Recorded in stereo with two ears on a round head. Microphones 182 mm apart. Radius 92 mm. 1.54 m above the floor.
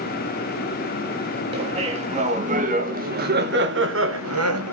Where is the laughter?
30° right (ahead or behind), 3 m; by 4.7 s 75° right (ahead or behind), 1.2 m.